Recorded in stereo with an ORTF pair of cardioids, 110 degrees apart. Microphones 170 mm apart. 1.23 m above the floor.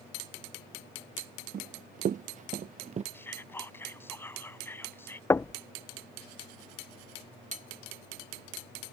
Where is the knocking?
15° left.